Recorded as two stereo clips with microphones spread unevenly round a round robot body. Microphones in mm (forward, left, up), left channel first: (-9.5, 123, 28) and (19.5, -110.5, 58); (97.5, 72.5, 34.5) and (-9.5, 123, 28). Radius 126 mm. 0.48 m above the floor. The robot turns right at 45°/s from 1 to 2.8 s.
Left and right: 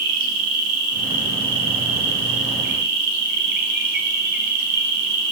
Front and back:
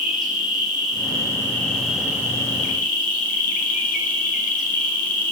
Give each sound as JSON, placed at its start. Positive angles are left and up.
{"t": 0.0, "sound": "an insect", "azimuth_deg": -115, "distance_m": 2.5}